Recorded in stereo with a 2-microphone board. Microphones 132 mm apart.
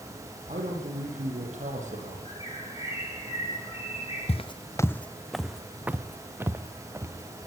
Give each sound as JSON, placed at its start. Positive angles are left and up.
{"t": 0.5, "sound": "a man speaking", "side_deg": -70, "distance_m": 8.0}
{"t": 2.2, "sound": "a bird", "side_deg": 45, "distance_m": 4.5}
{"t": 4.3, "sound": "footsteps", "side_deg": 55, "distance_m": 0.5}